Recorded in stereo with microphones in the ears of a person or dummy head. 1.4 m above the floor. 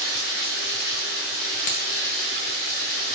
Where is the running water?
55° left (ahead or behind), 2.0 m.